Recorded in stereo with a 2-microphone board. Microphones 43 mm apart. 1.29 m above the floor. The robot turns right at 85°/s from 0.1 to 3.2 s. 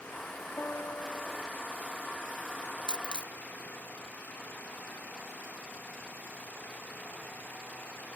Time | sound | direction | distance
0.6 | a piano | 70° left | ?
2.9 | a dropped coin | 15° left (ahead or behind) | ?